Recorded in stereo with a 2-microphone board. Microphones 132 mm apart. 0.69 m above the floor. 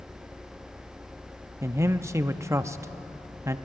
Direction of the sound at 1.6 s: 20° right (ahead or behind).